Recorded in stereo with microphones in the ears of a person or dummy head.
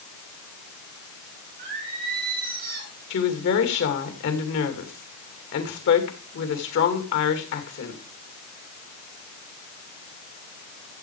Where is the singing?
50° right (ahead or behind), 9 m.